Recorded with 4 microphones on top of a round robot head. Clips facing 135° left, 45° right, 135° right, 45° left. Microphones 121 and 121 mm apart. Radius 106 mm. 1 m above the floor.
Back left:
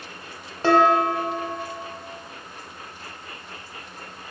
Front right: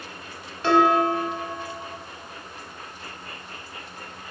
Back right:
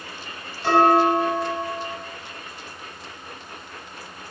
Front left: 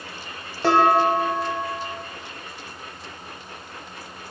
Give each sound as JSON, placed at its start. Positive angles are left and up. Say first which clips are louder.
{"t": 0.6, "sound": "dishes clattering", "louder": "back left 1 dB, back right 1 dB", "azimuth_deg": 80, "distance_m": 1.3}